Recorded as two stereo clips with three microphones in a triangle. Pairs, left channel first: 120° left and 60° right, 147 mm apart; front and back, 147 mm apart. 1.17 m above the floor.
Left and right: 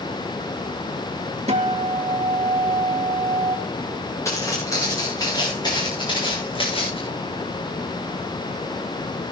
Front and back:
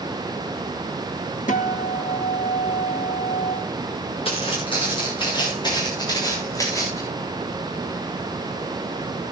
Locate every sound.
1.5 s a guitar: 20° right, 1.6 m
4.2 s footsteps: 50° left, 7 m; by 7.0 s 70° left, 6.5 m